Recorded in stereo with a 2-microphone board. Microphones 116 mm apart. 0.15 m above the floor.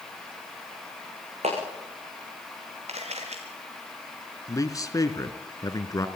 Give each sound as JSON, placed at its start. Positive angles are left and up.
{"t": 1.4, "sound": "a clap", "side_deg": -70, "distance_m": 9.0}
{"t": 2.9, "sound": "a camera shutter", "side_deg": -70, "distance_m": 4.5}
{"t": 4.5, "sound": "a man speaking", "side_deg": 30, "distance_m": 1.8}